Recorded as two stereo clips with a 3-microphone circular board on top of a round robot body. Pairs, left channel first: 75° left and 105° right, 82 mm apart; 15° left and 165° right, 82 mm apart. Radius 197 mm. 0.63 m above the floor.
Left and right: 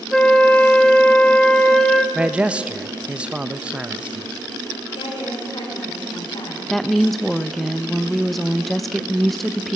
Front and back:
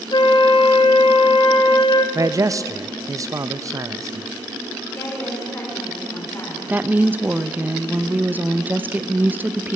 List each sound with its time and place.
0.1 s a flute: 10° right, 0.8 m
2.1 s a man speaking: 175° right, 0.6 m
4.9 s a woman speaking: 80° left, 2.5 m
6.7 s a woman speaking: 160° left, 0.8 m